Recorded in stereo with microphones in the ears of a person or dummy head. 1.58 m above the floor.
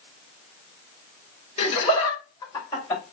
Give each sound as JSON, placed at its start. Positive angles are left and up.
{"t": 1.6, "sound": "laughter", "side_deg": 35, "distance_m": 2.5}